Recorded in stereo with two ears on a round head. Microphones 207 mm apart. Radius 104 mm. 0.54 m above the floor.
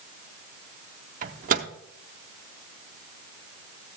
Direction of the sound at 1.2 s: 35° right (ahead or behind).